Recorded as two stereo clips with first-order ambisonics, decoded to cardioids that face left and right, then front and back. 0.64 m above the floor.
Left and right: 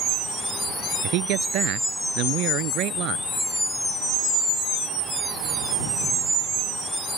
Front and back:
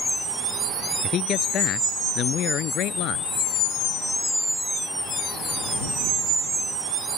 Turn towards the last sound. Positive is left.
turn(degrees=-45)